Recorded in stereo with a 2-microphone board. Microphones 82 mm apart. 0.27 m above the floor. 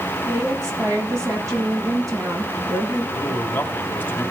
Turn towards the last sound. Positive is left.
turn(degrees=20)  # may be behind; listen again after turning